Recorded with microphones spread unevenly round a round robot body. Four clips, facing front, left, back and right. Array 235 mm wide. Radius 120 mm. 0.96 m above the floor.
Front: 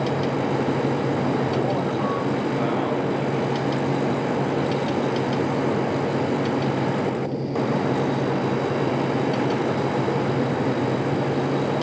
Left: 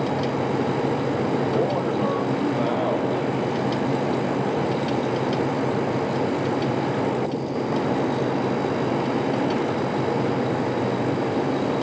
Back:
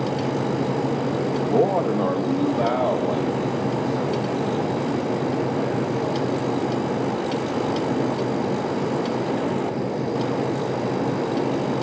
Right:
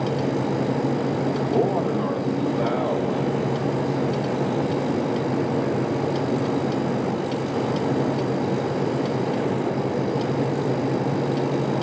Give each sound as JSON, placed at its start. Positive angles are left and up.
{"t": 1.4, "sound": "a man speaking", "azimuth_deg": 175, "distance_m": 1.5}